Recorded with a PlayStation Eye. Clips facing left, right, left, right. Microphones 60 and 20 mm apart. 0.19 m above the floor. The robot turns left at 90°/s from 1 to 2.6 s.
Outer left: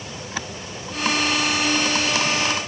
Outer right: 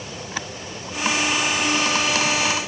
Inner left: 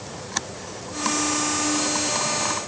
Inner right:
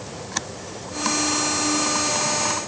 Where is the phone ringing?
I don't hear a phone ringing.